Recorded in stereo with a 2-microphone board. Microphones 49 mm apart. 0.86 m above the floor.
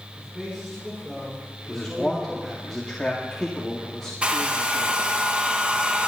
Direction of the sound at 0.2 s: 15° right (ahead or behind).